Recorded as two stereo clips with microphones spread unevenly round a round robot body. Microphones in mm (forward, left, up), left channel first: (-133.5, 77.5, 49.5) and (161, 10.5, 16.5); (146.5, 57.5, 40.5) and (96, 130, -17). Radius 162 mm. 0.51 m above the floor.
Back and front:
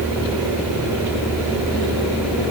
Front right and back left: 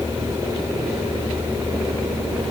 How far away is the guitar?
No guitar in this recording.